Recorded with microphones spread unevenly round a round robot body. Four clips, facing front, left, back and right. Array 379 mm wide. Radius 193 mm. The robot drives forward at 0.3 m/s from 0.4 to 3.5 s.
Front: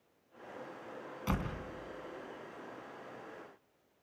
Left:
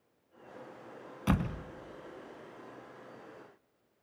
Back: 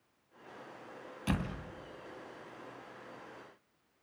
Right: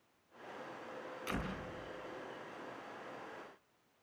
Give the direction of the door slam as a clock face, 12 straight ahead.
9 o'clock.